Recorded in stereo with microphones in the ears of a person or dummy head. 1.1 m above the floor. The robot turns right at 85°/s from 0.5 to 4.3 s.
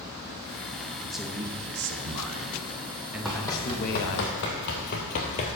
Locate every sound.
1.0 s a man speaking: 170° left, 1.0 m; by 4.2 s 85° left, 1.0 m
3.2 s running footsteps: centre (ahead or behind), 2.5 m; by 5.6 s 30° left (ahead or behind), 1.3 m